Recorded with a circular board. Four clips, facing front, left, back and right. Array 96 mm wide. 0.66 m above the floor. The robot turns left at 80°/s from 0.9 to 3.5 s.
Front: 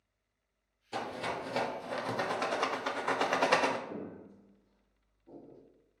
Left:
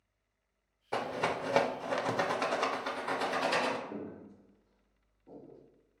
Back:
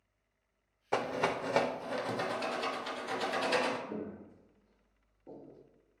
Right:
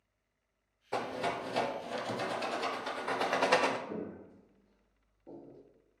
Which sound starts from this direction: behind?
A rattle, at 0.9 s.